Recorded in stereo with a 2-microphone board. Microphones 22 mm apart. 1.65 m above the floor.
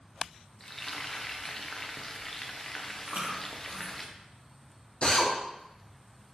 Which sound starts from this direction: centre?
Frying, at 0.6 s.